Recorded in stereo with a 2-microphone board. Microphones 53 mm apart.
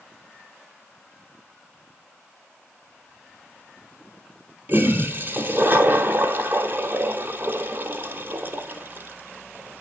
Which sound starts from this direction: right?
A toilet flushing, at 4.7 s.